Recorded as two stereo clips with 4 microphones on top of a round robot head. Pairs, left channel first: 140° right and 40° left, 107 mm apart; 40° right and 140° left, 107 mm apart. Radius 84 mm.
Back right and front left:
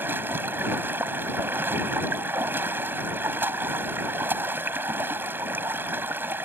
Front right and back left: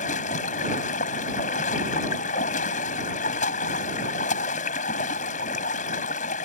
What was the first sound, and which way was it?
Running water, 30° right.